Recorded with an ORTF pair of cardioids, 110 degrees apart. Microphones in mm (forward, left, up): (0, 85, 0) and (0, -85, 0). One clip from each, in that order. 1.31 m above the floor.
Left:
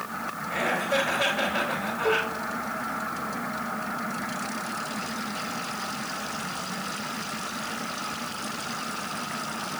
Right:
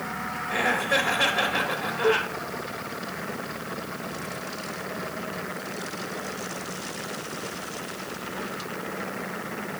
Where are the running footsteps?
I don't hear running footsteps.